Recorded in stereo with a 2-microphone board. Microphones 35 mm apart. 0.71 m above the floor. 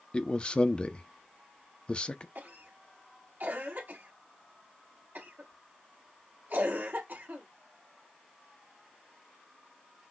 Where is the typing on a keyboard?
I don't hear typing on a keyboard.